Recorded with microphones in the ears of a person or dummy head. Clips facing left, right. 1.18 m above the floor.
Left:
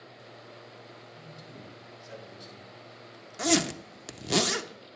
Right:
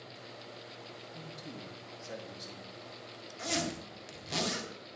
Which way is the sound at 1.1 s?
45° right (ahead or behind).